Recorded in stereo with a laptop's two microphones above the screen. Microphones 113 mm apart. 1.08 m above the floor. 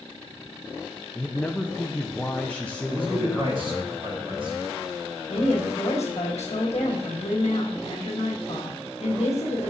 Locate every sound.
1.1 s a man speaking: 10° left (ahead or behind), 0.5 m
2.9 s a man speaking: 50° right (ahead or behind), 1.6 m
5.3 s a woman speaking: 75° left (ahead or behind), 1.5 m